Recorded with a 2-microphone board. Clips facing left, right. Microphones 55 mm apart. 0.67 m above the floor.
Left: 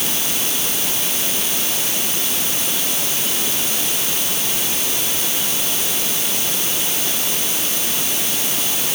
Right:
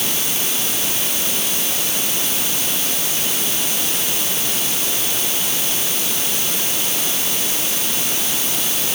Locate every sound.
Only background noise.